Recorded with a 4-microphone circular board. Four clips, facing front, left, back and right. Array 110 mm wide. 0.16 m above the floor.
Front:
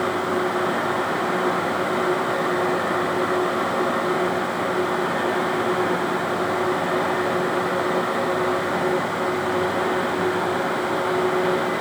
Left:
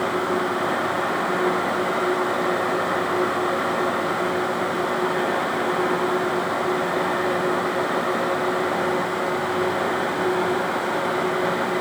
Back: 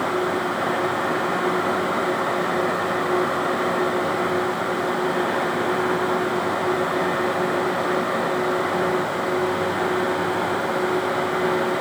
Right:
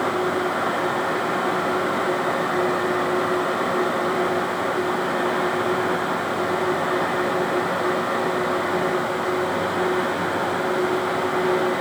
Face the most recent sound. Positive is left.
No sound to turn to.